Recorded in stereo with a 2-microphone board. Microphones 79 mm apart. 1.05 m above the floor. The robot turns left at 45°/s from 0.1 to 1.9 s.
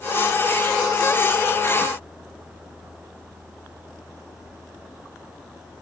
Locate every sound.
Only background noise.